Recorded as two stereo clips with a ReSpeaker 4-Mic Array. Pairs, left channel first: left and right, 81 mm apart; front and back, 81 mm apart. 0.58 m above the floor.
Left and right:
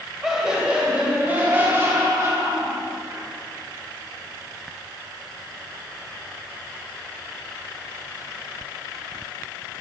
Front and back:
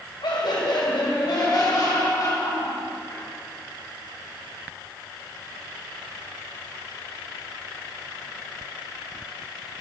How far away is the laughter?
About 3 m.